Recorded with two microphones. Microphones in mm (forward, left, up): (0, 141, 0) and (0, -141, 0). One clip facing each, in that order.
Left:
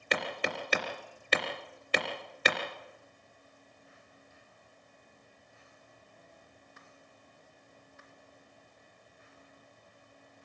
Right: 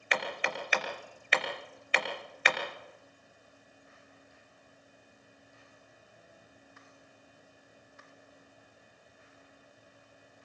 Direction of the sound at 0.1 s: 45° left (ahead or behind).